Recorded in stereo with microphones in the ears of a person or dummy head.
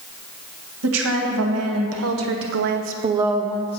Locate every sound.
0.8 s a woman speaking: 85° right, 2.5 m; by 3.8 s 30° left (ahead or behind), 0.7 m